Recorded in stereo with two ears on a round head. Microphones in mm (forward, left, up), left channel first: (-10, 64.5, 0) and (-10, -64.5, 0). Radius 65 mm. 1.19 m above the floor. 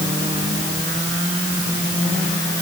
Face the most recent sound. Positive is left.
No sound to turn to.